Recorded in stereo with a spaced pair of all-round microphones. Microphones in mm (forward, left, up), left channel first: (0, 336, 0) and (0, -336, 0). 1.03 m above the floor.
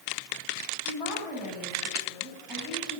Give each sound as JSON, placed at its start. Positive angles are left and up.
{"t": 0.8, "sound": "a woman speaking", "side_deg": 0, "distance_m": 8.0}